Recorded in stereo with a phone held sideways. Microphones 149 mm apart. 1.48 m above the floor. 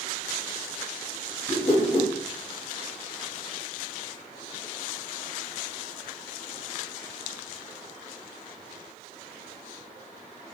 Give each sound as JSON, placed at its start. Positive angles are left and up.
{"t": 1.5, "sound": "a whoosh", "side_deg": 55, "distance_m": 1.0}